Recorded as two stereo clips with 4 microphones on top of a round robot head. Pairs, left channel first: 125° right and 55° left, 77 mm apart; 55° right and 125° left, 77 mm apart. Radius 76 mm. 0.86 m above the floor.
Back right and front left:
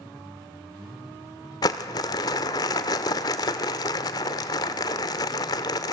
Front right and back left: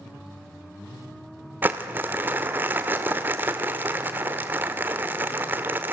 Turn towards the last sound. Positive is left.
turn(degrees=-165)